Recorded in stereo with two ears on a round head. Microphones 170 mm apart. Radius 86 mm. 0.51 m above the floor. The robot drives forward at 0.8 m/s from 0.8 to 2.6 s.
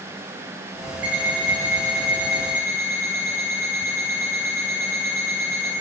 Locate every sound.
1.0 s an alarm clock: 10° right (ahead or behind), 6.5 m